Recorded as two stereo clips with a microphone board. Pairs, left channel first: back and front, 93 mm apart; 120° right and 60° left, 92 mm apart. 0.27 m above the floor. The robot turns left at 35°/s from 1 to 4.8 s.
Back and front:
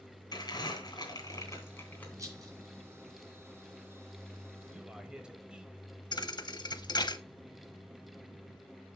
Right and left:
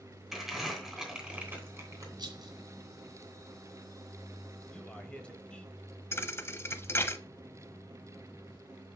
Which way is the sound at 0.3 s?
145° left.